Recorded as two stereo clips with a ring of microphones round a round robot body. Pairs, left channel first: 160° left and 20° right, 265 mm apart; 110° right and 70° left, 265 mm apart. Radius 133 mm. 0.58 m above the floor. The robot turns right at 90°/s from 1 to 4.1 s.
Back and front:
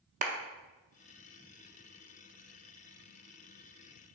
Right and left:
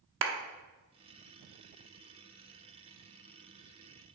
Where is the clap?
35° left, 0.7 m.